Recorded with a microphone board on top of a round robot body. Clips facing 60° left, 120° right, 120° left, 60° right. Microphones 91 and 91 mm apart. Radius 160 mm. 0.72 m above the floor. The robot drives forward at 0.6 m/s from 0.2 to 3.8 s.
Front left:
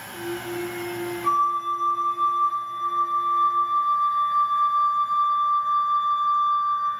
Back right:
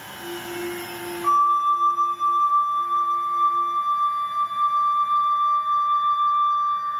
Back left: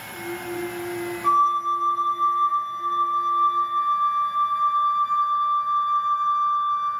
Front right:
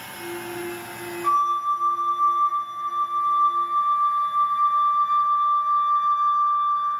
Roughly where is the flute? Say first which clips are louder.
Back right 4 dB, back left 1 dB; behind right.